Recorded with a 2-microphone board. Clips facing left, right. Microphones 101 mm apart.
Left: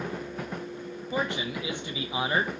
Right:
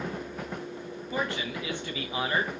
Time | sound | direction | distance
1.1 | a man speaking | 20° left (ahead or behind) | 0.6 m